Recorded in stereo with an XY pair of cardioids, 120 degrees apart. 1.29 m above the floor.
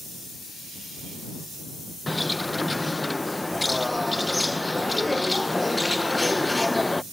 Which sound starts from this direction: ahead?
A bird, at 2.1 s.